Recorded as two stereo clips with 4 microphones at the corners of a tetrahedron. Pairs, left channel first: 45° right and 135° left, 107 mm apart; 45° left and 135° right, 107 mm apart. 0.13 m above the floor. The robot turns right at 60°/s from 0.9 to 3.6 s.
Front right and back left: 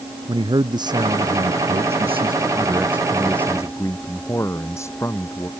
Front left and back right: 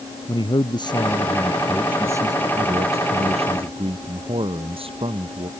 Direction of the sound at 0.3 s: 90° left.